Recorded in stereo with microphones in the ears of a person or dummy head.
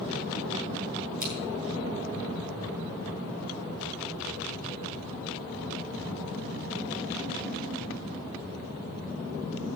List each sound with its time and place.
1.2 s scissors: 50° right (ahead or behind), 7 m